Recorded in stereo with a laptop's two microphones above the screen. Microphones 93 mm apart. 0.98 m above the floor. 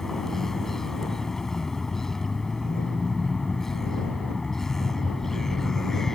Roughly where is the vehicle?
Centre.